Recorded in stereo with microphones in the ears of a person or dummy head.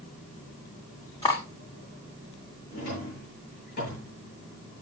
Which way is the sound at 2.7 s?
45° left (ahead or behind).